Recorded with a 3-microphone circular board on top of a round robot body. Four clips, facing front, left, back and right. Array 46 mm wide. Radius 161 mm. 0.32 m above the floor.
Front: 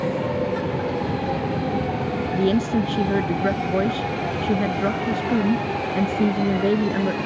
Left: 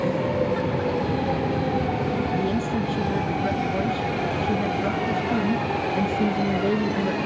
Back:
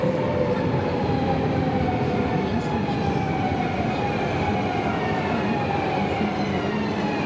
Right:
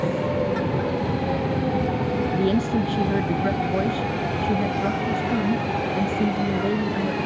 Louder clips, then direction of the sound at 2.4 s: Right 3 dB, front 4 dB; 25° right.